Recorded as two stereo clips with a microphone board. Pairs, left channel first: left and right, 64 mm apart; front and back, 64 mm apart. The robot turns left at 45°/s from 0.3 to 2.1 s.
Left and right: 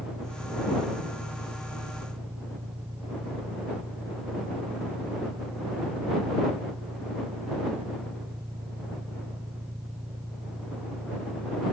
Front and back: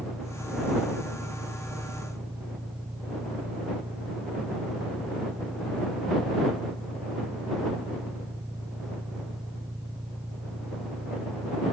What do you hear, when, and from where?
0.0 s an engine running: 70° right; by 11.7 s 150° right